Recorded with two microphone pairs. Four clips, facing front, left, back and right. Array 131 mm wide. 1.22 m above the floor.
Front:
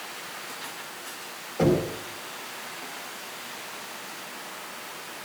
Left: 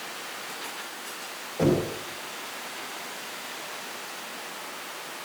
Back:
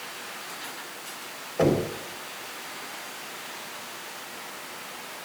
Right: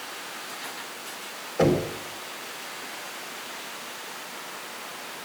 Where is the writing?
No writing in this recording.